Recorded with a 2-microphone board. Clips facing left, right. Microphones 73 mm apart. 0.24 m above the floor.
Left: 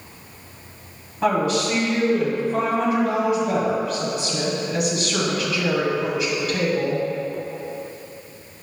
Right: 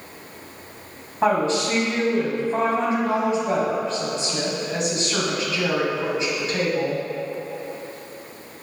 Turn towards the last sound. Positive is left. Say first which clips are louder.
# even
turn(degrees=-30)  # may be behind; listen again after turning